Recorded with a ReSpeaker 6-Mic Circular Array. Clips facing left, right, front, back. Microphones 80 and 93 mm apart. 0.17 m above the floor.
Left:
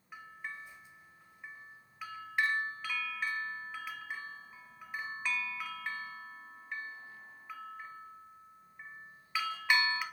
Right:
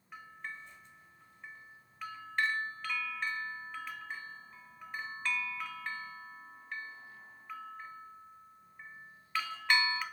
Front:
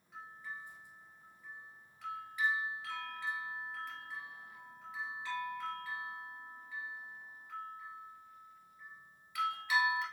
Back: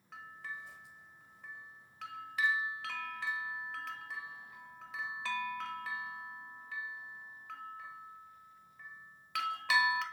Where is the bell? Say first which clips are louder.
Left 1 dB, back 1 dB; 175° left, 0.7 m.